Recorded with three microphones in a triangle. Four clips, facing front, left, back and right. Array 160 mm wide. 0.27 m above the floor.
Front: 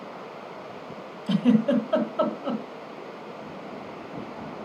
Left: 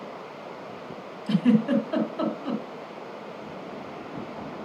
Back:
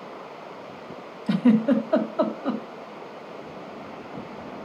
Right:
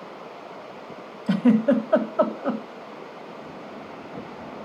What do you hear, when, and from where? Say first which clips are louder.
1.3 s a giggle: right 3 dB, back 2 dB; 105° right, 1.5 m